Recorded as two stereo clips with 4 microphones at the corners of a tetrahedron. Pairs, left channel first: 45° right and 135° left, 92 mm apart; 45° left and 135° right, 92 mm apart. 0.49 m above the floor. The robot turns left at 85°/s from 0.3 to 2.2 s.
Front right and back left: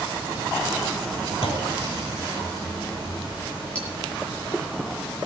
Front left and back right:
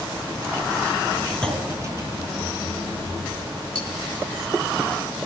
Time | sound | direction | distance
1.4 | a clunk | 35° right | 2.5 m
3.8 | cutlery clinking | 30° left | 6.5 m